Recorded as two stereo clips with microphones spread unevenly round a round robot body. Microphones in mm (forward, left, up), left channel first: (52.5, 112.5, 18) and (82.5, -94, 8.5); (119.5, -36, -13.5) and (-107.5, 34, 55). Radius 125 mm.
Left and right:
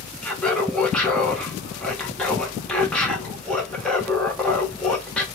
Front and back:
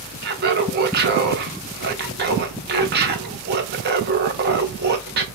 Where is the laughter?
175° right, 0.8 m.